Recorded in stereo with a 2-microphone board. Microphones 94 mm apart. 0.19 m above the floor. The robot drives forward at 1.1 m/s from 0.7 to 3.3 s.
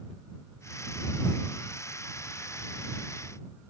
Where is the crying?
I don't hear crying.